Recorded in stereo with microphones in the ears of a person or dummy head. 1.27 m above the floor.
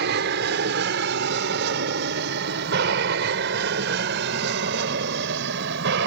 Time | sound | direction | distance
0.0 | an aircraft | 60° right (ahead or behind) | ?